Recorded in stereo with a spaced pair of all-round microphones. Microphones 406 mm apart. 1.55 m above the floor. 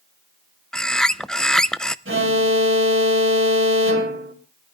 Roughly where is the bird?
Centre.